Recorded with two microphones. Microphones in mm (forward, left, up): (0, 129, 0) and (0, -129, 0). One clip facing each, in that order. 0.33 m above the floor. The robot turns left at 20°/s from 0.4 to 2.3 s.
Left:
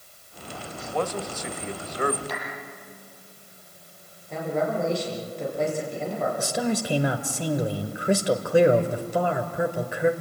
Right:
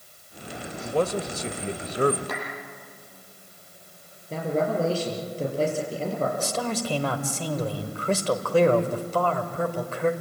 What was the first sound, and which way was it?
A man speaking, 35° right (ahead or behind).